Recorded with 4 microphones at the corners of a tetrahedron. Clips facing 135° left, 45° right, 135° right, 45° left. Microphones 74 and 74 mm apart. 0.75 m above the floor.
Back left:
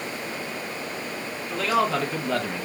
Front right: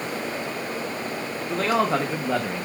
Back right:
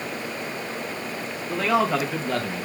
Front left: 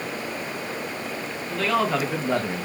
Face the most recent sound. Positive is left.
turn(degrees=45)